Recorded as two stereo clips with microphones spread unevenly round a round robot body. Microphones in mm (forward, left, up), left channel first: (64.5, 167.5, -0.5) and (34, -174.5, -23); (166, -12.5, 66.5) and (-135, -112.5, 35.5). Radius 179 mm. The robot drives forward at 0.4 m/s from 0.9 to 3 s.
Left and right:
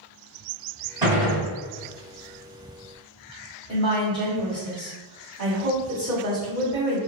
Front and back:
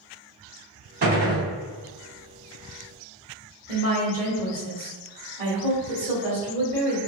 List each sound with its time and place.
1.0 s a gunshot: 160° right, 1.4 m; by 1.4 s 165° right, 1.5 m
3.7 s a woman speaking: 160° left, 1.6 m